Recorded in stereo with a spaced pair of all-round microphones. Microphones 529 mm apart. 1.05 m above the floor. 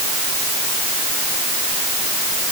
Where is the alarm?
No alarm in this recording.